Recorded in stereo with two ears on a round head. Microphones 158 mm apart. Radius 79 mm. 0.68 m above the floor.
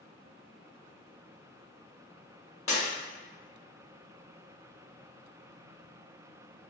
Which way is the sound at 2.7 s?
35° left (ahead or behind).